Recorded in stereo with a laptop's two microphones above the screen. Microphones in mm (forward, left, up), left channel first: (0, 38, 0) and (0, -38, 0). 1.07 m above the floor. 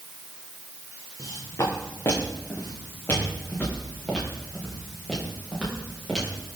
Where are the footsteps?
45° left (ahead or behind), 5 m; by 6.6 s 10° right (ahead or behind), 7 m.